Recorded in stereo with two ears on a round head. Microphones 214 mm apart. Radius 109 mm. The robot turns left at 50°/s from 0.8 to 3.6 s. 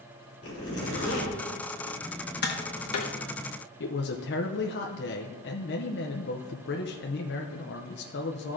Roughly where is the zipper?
Left.